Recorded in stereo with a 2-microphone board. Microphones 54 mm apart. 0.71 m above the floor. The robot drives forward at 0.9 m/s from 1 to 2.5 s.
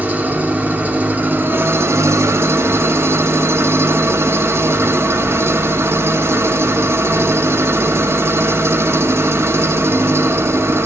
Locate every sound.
0.0 s an engine running: 30° right (ahead or behind), 1.2 m; by 10.9 s 50° right (ahead or behind), 0.8 m